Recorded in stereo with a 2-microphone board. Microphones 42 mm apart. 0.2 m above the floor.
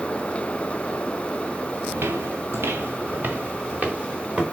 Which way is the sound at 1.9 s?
65° right (ahead or behind).